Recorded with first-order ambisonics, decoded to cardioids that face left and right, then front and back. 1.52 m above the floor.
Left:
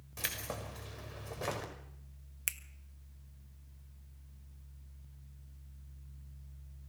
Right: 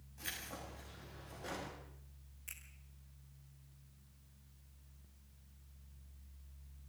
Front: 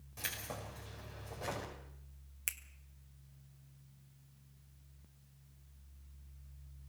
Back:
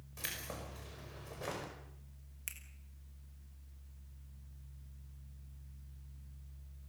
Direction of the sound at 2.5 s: 70° left.